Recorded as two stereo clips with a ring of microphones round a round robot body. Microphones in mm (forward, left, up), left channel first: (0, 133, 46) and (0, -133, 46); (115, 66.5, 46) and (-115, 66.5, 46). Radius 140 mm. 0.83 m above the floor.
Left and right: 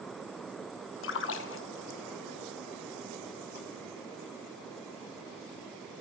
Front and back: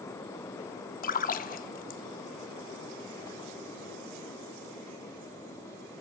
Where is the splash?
50° left, 0.5 m.